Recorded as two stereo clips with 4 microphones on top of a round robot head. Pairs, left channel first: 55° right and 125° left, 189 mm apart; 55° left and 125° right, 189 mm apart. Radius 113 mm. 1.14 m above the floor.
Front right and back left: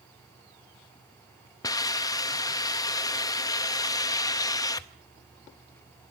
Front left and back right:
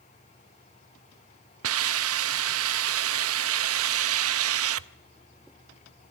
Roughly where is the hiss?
Behind right.